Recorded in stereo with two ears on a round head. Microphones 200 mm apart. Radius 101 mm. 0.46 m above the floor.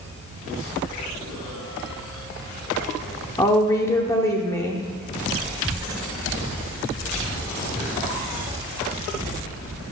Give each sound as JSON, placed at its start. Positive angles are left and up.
{"t": 3.4, "sound": "a woman speaking", "side_deg": 15, "distance_m": 0.8}